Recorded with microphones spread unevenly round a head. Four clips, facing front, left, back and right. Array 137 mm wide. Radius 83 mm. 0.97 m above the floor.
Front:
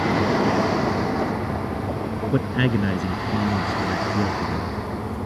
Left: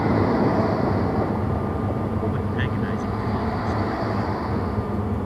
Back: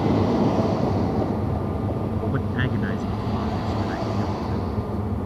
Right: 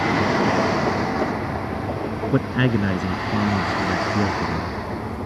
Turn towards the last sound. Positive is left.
turn(degrees=-75)